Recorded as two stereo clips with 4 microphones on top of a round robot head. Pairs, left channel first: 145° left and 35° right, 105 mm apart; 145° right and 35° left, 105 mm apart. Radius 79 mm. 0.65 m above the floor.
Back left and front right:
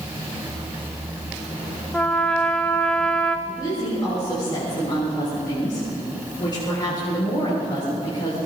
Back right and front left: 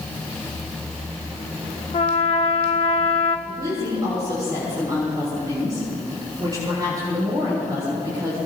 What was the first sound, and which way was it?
A trumpet, 135° right.